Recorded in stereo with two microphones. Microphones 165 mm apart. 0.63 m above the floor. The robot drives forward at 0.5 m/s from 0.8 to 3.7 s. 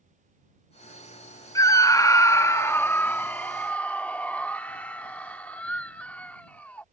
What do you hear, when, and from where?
1.6 s a scream: 20° left (ahead or behind); by 6.8 s 10° left (ahead or behind)